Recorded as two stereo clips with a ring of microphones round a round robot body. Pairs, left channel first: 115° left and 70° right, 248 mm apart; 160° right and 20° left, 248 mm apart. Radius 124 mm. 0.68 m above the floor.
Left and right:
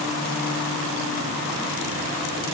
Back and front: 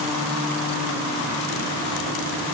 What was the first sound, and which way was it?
Only background noise.